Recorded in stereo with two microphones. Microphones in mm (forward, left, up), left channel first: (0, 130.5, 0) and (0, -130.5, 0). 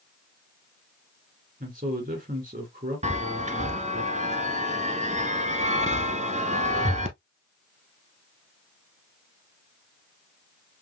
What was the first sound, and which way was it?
A man speaking, 35° right (ahead or behind).